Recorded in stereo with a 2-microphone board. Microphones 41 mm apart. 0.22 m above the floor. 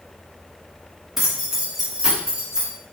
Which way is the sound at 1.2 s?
5° right (ahead or behind).